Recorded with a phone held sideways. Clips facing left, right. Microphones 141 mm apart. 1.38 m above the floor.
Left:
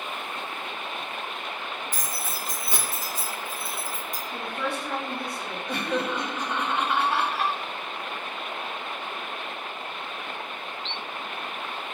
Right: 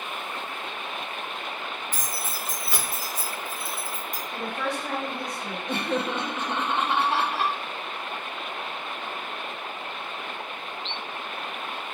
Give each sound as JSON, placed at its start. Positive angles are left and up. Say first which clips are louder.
{"t": 1.9, "sound": "keys jangling", "louder": "even", "side_deg": 10, "distance_m": 1.3}
{"t": 4.3, "sound": "a woman speaking", "louder": "right 1 dB", "side_deg": -40, "distance_m": 1.6}
{"t": 5.7, "sound": "laughter", "louder": "even", "side_deg": -25, "distance_m": 0.7}